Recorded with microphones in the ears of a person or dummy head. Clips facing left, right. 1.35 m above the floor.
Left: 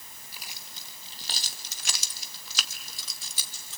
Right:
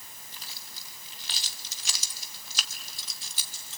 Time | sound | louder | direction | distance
0.3 | keys jangling | left 2 dB | 10° left (ahead or behind) | 1.1 m